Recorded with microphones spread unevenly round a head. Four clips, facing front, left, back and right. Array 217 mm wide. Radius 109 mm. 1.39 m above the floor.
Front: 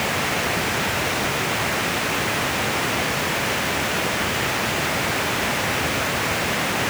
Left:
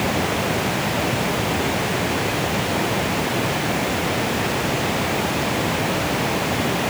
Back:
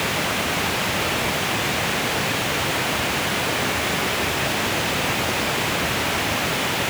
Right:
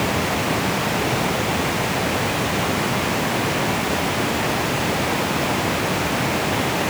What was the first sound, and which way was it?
Only background noise.